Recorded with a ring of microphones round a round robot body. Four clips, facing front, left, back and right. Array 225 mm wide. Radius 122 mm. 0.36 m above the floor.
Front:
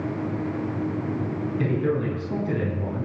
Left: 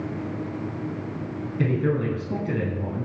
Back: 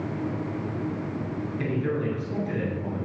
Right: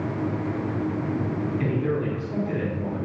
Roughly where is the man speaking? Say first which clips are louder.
Left 5 dB, front 3 dB; ahead left.